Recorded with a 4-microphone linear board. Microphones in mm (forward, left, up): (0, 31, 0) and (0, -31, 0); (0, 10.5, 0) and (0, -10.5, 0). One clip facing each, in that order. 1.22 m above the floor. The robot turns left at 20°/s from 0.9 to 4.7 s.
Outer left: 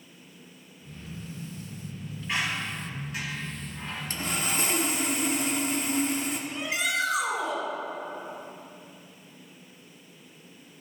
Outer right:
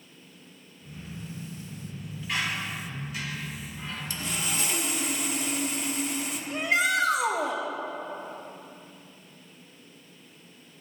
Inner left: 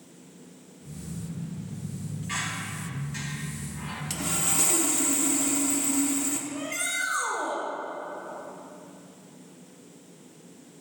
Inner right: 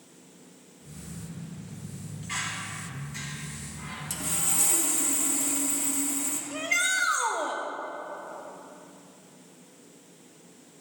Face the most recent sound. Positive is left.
turn(degrees=-55)  # may be behind; listen again after turning